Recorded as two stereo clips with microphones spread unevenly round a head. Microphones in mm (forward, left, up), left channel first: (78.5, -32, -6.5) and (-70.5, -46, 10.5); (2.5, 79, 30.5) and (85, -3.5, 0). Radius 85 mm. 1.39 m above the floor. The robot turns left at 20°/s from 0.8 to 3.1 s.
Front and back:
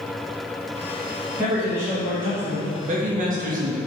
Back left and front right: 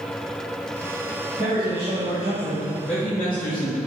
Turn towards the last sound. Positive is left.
turn(degrees=-140)